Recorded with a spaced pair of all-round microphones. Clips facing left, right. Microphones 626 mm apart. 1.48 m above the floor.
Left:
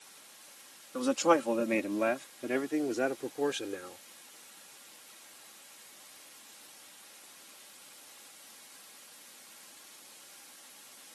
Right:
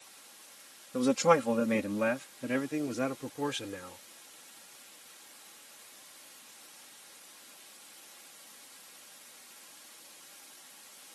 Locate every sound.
0.9 s a man speaking: 50° right (ahead or behind); by 4.0 s 30° right (ahead or behind)